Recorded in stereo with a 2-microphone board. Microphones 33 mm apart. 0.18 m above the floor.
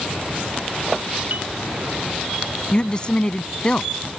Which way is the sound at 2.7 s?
25° left (ahead or behind).